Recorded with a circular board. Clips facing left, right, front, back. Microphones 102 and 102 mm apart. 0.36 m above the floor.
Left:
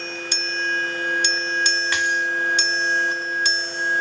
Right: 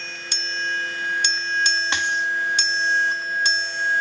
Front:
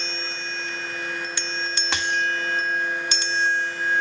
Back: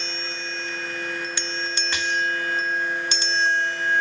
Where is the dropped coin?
25° right, 1.8 m.